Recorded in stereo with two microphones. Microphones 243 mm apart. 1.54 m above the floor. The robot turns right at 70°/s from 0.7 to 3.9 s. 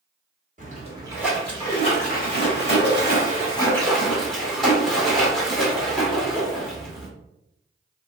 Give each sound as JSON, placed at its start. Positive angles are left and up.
{"t": 0.6, "sound": "a splash", "azimuth_deg": -45, "distance_m": 1.4}